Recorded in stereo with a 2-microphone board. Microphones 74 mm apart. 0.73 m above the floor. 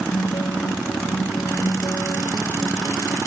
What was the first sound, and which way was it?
A guitar, 65° left (ahead or behind).